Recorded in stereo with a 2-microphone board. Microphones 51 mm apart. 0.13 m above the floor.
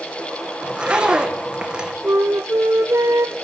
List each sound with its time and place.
0.6 s a zipper: 20° right (ahead or behind), 3 m
2.0 s a flute: 70° right (ahead or behind), 1.4 m